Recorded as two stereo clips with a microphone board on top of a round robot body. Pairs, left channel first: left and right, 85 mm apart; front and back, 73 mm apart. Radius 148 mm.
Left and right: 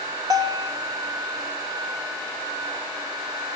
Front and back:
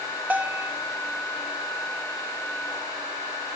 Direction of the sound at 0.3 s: 115° right.